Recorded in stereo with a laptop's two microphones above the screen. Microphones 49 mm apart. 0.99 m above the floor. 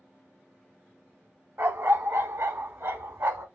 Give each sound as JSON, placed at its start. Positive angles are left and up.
{"t": 1.6, "sound": "a dog barking", "side_deg": -70, "distance_m": 2.0}